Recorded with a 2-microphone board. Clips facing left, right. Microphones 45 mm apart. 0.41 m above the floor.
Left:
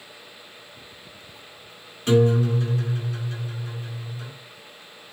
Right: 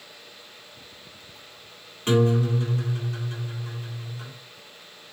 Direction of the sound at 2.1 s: 30° right (ahead or behind).